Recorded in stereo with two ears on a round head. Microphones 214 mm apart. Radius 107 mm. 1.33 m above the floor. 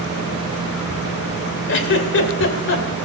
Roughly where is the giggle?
Left.